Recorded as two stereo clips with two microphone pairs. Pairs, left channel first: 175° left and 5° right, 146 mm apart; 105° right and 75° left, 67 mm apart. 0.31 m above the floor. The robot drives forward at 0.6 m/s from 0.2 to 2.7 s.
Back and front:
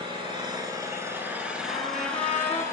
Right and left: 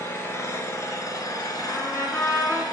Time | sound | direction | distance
0.0 | an engine running | 55° right | 1.7 m
1.7 | a trumpet | 145° right | 3 m